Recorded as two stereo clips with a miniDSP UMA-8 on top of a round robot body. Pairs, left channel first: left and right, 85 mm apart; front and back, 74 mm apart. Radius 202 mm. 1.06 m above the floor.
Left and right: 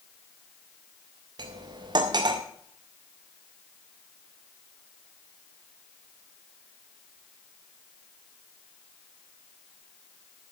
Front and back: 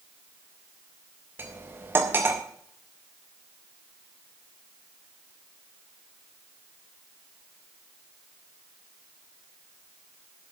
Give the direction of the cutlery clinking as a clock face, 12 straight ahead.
4 o'clock.